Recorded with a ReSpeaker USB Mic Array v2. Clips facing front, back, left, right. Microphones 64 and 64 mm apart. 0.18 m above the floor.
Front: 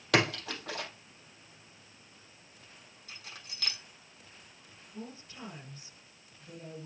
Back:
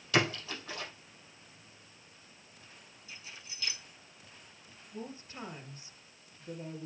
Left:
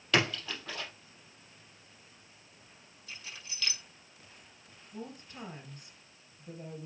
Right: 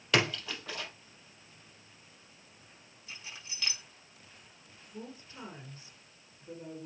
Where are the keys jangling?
20° right, 4.5 m.